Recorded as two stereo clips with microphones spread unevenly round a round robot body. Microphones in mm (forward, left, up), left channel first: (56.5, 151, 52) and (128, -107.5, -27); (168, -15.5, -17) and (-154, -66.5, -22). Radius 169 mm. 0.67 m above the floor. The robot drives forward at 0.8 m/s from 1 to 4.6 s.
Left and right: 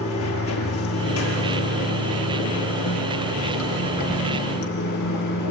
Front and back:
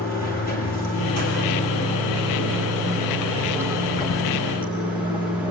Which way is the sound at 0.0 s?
75° left.